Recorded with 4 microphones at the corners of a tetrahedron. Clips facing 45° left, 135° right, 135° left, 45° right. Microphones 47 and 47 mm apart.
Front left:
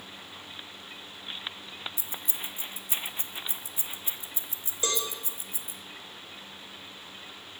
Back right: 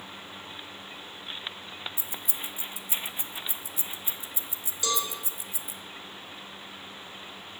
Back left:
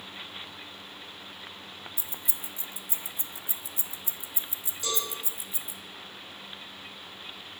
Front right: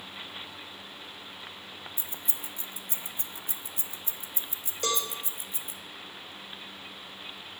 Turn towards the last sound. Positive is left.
turn(degrees=-10)